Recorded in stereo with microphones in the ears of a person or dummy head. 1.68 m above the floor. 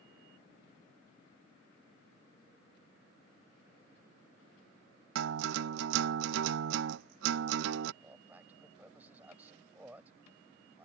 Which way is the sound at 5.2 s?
75° right (ahead or behind).